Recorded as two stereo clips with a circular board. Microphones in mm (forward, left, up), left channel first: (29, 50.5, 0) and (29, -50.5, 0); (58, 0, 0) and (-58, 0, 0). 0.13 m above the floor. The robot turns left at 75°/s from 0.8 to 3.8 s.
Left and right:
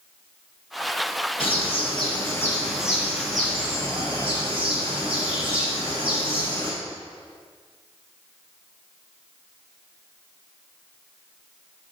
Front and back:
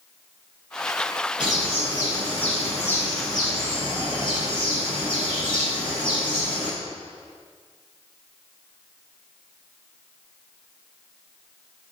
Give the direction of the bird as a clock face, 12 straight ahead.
9 o'clock.